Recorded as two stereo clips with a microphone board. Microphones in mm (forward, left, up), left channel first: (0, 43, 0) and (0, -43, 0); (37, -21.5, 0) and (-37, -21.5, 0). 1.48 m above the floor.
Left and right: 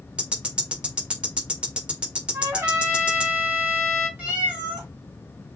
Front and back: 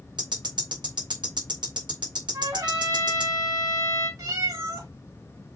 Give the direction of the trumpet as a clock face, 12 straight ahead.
5 o'clock.